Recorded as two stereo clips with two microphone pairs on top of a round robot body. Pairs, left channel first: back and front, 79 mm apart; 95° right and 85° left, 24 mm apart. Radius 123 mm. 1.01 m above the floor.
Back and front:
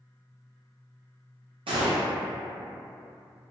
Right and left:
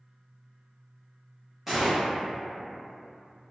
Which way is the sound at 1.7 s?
Straight ahead.